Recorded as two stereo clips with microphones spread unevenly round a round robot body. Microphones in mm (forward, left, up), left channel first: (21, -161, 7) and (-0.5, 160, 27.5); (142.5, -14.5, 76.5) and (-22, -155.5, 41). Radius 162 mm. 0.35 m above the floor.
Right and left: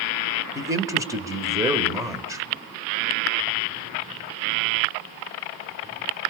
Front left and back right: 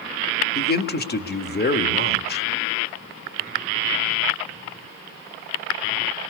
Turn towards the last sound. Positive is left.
turn(degrees=15)